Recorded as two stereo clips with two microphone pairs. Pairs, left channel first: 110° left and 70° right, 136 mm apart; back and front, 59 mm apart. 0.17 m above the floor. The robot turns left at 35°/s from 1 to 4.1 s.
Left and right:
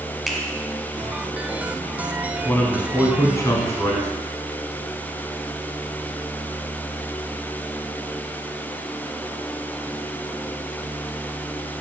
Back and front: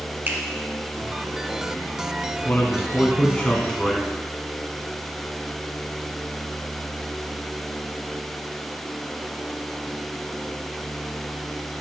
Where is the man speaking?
170° left, 1.1 m; by 4.1 s 110° left, 1.1 m.